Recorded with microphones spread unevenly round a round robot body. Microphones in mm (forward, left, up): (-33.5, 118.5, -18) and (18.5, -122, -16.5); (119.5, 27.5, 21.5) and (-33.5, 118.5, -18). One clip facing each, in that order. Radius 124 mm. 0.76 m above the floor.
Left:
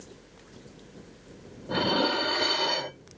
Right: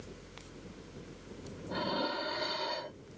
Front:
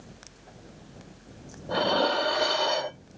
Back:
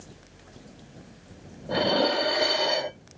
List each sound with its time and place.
1.7 s dishes clattering: 75° left